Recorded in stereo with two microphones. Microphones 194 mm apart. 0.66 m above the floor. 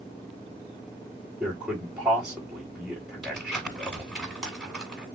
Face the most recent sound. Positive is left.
turn(degrees=0)  # may be behind; listen again after turning